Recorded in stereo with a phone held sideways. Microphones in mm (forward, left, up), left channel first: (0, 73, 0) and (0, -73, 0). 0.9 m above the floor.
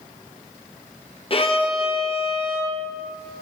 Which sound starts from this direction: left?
A violin, at 1.3 s.